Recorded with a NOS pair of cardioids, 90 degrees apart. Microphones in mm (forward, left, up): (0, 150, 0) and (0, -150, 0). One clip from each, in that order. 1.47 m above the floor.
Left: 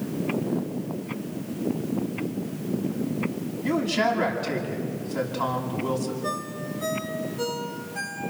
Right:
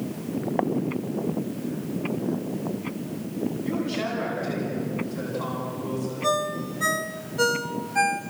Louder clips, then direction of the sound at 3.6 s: Left 9 dB; 65° left.